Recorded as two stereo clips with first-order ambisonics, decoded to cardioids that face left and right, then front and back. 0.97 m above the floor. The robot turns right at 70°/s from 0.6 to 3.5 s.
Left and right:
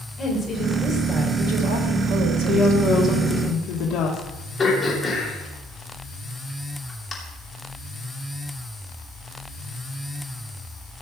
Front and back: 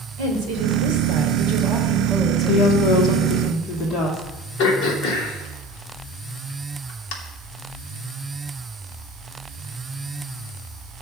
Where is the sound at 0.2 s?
155° left, 3.5 m; by 3.5 s 5° right, 3.5 m.